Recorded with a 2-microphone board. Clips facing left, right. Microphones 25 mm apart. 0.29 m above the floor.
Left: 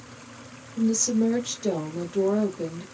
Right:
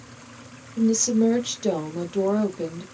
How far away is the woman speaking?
About 1.2 m.